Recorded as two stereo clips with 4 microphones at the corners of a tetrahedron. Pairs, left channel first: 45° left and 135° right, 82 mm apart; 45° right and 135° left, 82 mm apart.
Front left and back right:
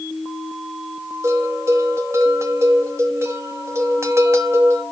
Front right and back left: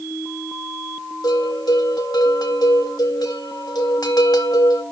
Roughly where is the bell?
Right.